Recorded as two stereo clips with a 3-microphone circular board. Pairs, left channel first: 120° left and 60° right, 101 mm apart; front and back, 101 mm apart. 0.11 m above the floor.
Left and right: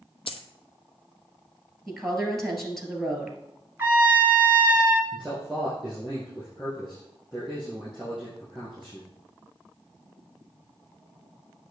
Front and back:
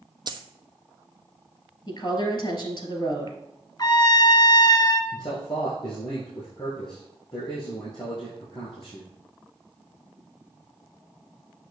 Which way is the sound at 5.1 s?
35° left.